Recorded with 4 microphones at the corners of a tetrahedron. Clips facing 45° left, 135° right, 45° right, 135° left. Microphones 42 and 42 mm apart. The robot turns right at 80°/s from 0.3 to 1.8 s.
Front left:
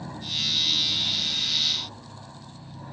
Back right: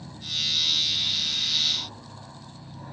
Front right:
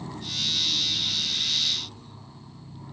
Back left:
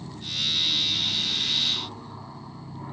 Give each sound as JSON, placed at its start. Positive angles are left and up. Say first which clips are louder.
{"t": 0.0, "sound": "an aircraft", "louder": "front left 1 dB, back left 1 dB", "azimuth_deg": 15}